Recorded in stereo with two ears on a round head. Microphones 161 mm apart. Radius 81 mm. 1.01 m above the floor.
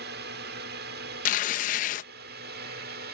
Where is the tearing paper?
45° left (ahead or behind).